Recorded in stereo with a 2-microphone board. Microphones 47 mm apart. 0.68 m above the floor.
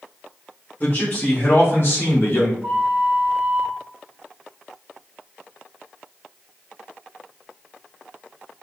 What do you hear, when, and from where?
0.8 s a man speaking: 45° left (ahead or behind), 2 m; by 2.5 s 60° left (ahead or behind), 1.5 m
2.6 s a flute: 40° right (ahead or behind), 1.2 m